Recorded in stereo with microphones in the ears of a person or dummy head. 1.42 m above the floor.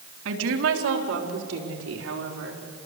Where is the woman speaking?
75° right (ahead or behind), 3.5 m.